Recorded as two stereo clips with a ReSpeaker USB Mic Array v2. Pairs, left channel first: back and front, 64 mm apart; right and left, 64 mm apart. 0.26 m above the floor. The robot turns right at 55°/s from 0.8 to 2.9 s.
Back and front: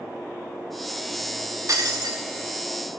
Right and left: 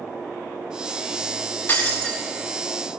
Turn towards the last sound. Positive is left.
turn(degrees=30)